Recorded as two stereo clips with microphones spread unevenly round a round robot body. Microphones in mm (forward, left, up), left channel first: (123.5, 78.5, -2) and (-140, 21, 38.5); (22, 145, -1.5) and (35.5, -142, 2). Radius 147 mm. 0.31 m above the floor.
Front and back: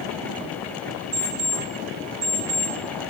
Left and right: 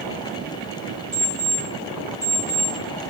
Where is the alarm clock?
135° right, 5 m.